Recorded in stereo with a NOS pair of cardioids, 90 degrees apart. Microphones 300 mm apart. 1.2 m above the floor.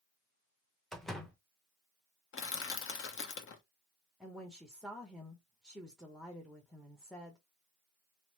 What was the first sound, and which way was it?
A door slam, straight ahead.